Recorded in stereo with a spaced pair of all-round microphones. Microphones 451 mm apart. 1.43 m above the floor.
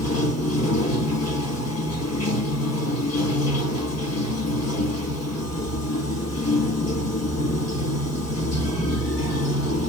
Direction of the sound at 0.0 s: 35° left (ahead or behind).